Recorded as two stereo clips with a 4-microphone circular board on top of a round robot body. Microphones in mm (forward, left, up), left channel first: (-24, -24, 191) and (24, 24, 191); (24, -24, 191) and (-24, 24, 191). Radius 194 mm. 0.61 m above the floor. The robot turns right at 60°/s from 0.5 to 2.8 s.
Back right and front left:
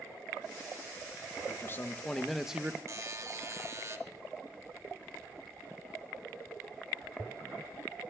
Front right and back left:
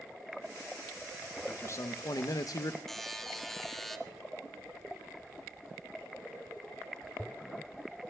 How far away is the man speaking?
About 1.1 m.